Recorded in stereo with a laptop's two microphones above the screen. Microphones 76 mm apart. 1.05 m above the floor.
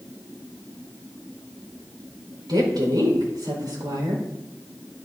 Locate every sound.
2.5 s a woman speaking: 65° right (ahead or behind), 5 m